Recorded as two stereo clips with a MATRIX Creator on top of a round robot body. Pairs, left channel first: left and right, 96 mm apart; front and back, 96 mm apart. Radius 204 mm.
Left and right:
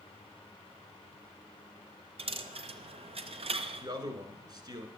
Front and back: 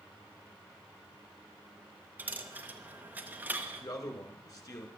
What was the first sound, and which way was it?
A dropped coin, 105° right.